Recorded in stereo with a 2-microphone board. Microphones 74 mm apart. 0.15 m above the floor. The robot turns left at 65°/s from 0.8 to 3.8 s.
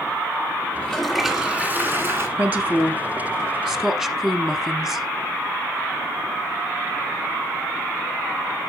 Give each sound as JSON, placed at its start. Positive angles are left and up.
{"t": 0.8, "sound": "a toilet flushing", "azimuth_deg": 20, "distance_m": 1.6}
{"t": 2.4, "sound": "a woman speaking", "side_deg": -20, "distance_m": 1.1}